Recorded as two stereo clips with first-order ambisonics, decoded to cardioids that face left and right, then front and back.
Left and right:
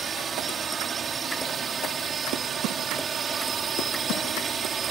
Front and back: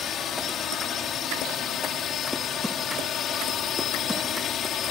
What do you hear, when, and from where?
0.0 s a drone: 35° right